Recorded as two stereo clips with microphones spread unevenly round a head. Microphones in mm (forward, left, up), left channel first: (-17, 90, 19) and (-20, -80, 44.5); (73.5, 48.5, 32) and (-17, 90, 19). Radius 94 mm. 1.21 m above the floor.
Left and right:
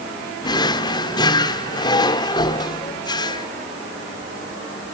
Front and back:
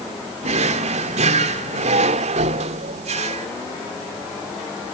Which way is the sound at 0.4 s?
160° left.